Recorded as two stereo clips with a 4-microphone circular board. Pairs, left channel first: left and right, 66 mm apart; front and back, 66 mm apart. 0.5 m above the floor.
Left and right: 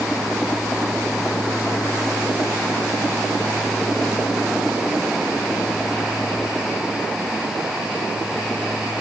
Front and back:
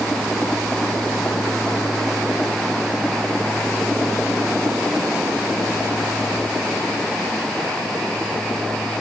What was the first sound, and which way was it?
Only background noise.